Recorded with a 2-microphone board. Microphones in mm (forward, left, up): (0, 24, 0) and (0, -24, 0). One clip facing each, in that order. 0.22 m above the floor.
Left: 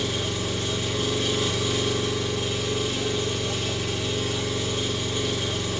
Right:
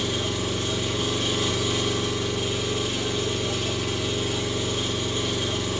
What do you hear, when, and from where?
0.0 s an engine running: 20° right (ahead or behind), 1.5 m